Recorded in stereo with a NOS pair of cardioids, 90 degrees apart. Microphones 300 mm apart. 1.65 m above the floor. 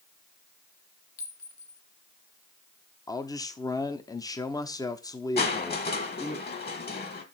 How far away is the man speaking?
About 0.9 m.